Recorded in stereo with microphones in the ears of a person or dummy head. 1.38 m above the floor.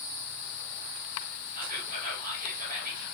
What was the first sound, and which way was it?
Whispering, 45° right (ahead or behind).